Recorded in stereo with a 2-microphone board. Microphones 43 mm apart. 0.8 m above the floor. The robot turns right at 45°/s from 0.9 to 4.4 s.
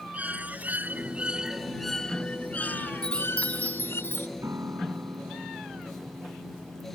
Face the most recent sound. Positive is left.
turn(degrees=-85)